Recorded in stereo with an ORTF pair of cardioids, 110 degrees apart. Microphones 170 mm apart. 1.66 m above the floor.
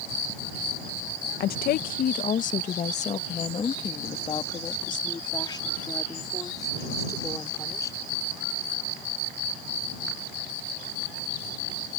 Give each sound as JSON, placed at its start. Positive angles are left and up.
{"t": 1.4, "sound": "a woman speaking", "azimuth_deg": 70}